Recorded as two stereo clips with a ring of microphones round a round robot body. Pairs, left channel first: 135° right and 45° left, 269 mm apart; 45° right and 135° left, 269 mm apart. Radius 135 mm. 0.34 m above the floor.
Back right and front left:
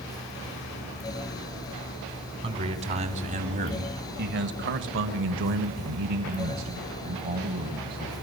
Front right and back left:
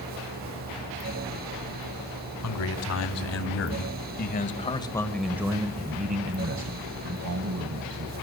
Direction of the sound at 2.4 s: 25° right.